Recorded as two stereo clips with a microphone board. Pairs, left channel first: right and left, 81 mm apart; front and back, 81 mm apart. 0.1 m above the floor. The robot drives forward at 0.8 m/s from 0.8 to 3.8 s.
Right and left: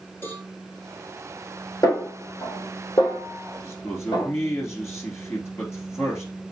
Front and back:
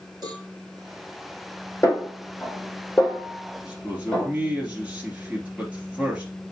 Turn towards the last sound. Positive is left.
turn(degrees=-115)